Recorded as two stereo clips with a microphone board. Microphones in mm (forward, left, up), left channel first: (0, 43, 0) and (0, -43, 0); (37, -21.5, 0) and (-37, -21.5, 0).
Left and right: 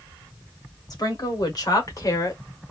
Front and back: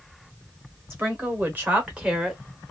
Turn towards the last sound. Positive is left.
turn(degrees=100)